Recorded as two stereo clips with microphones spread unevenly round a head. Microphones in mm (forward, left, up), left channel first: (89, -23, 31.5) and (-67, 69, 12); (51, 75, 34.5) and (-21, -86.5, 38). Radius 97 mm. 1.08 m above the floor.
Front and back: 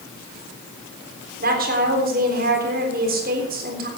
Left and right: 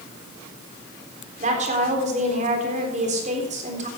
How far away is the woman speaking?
About 3.5 m.